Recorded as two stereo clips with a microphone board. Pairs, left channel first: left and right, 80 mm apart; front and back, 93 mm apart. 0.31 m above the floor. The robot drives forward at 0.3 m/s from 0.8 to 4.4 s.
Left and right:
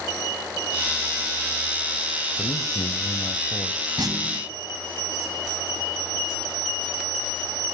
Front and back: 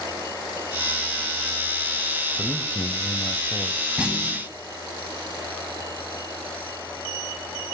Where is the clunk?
105° right, 2.0 m; by 4.5 s 110° right, 2 m.